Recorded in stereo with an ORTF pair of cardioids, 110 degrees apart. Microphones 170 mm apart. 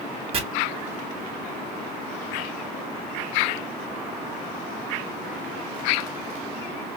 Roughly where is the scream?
No scream in this recording.